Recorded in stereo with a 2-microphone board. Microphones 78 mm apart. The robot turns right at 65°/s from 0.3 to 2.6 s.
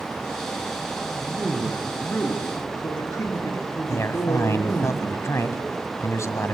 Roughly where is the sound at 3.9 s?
Left.